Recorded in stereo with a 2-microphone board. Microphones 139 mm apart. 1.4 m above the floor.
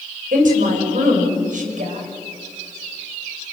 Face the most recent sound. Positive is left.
turn(degrees=-70)  # may be behind; listen again after turning